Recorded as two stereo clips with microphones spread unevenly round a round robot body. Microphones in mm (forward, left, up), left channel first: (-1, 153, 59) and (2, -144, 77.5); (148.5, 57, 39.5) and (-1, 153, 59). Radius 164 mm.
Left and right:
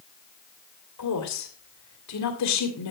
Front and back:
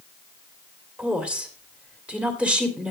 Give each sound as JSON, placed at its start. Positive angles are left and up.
{"t": 1.0, "sound": "a woman speaking", "azimuth_deg": 60, "distance_m": 2.5}